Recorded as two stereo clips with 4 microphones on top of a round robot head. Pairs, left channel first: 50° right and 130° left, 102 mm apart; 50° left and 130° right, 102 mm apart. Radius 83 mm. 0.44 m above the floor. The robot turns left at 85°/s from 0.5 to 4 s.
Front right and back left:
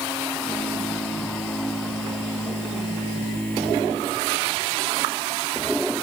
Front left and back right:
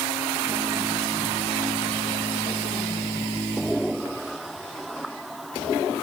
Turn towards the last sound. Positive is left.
No sound to turn to.